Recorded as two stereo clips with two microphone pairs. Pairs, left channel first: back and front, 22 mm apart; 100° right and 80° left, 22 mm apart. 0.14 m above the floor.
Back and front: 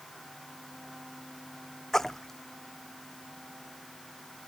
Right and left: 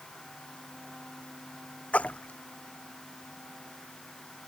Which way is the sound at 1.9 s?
105° right.